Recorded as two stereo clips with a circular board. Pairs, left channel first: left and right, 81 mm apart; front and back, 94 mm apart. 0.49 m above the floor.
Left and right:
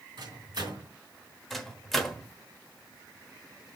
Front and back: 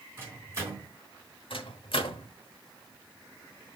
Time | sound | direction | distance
0.2 | a microwave | 115° right | 4 m
1.5 | a microwave | 5° left | 1.1 m